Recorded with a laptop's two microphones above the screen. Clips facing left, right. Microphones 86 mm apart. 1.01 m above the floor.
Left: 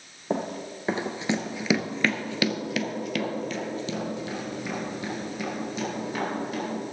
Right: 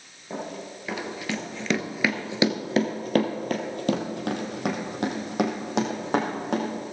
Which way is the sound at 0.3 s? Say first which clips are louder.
Left 5 dB; 45° left (ahead or behind).